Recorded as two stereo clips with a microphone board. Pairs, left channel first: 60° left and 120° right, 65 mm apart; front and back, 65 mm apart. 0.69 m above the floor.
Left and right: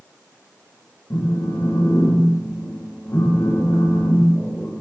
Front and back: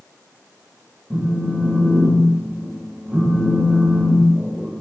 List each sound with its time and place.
1.1 s a phone buzzing: 110° left, 0.7 m